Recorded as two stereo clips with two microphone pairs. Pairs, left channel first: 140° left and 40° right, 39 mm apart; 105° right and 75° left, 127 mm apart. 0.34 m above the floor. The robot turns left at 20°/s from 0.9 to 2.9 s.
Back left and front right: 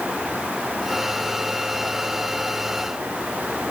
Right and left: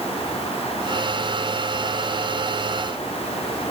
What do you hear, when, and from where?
Only background noise.